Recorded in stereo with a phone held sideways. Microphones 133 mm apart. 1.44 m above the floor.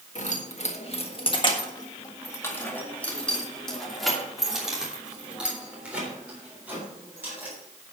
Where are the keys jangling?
65° left (ahead or behind), 1.4 m; by 7.5 s 15° right (ahead or behind), 4.5 m.